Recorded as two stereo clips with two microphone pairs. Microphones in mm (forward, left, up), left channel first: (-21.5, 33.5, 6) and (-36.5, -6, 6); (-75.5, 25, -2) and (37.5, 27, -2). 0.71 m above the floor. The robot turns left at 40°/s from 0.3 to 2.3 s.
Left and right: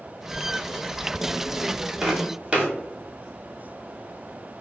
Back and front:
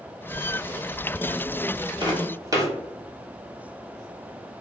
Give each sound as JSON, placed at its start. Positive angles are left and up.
{"t": 2.0, "sound": "footsteps", "azimuth_deg": -35, "distance_m": 1.1}